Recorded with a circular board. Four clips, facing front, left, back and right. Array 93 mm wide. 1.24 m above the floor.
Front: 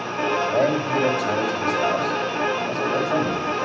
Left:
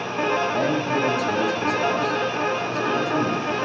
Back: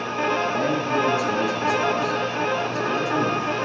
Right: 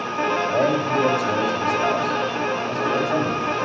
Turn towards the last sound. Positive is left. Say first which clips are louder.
# right 2 dB, front 2 dB
turn(degrees=-40)